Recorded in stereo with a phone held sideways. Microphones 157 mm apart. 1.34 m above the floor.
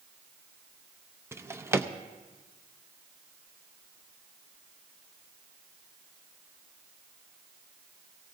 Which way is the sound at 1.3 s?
15° right (ahead or behind).